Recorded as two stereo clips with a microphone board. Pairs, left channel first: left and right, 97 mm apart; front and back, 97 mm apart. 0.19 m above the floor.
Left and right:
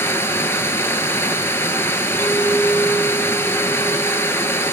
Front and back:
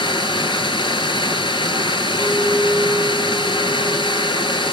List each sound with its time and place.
0.0 s running water: 25° left, 1.1 m
2.2 s a clink: 65° left, 1.5 m